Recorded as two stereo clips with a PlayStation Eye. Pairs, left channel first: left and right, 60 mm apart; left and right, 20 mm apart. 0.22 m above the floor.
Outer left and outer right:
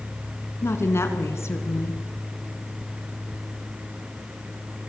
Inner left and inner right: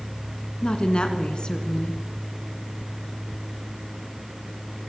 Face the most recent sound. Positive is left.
turn(degrees=50)  # may be behind; listen again after turning